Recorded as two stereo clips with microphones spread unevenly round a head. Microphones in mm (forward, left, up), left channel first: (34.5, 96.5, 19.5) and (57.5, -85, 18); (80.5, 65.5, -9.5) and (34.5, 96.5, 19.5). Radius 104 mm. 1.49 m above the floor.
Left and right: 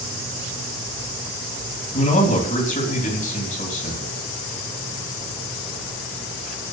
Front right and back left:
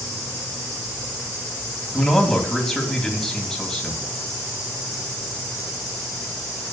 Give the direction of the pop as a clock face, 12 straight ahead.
No pop in this recording.